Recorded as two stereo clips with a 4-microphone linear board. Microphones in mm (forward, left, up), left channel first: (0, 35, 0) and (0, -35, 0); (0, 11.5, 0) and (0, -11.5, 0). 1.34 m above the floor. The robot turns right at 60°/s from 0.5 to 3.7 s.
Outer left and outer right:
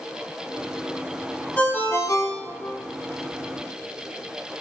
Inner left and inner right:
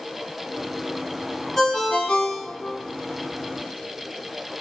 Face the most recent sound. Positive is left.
turn(degrees=150)